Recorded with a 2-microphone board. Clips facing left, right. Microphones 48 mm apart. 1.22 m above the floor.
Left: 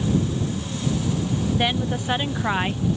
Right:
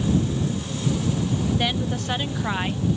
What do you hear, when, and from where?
1.5 s a woman speaking: 15° left (ahead or behind)